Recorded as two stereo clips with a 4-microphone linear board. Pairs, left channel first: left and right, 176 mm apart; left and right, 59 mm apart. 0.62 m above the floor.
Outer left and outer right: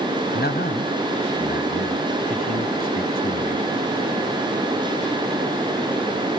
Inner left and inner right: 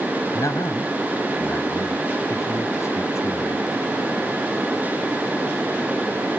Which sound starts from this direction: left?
A man speaking, at 0.3 s.